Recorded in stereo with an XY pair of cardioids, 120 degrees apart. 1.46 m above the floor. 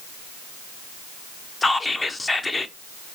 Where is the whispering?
20° left, 0.7 m.